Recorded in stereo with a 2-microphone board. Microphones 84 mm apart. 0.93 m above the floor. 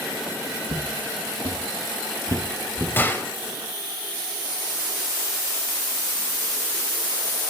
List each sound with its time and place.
0.7 s footsteps: 60° right (ahead or behind), 2.5 m; by 2.9 s 20° right (ahead or behind), 2 m
3.0 s a gunshot: 25° left (ahead or behind), 0.9 m